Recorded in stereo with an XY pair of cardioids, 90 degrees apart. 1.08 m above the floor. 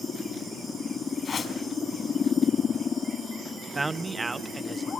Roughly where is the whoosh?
Ahead left.